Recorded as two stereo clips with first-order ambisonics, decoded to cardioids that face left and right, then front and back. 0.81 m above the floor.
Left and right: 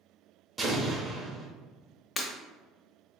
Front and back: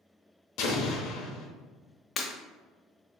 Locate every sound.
0.6 s an explosion: 20° right, 0.7 m
2.2 s breaking glass: 40° left, 0.6 m